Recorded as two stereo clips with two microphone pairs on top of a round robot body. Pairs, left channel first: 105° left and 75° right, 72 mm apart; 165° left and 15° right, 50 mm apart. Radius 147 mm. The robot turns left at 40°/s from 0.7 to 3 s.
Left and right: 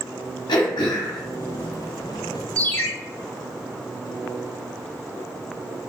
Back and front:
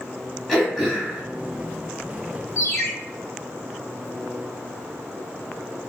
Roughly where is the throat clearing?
Left.